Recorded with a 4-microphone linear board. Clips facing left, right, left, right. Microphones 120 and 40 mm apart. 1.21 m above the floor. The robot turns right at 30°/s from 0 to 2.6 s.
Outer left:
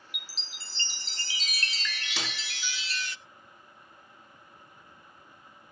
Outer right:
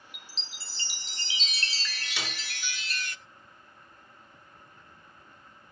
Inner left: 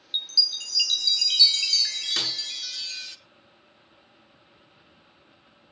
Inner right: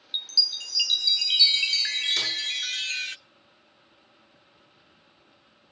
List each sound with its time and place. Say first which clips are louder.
0.1 s a chime: outer left 2 dB, inner left 1 dB; 170° left, 0.6 m; by 3.2 s 115° right, 0.6 m
2.2 s a snare drum: even, inner right 1 dB; 80° left, 7.5 m; by 2.3 s 75° left (ahead or behind), 7.5 m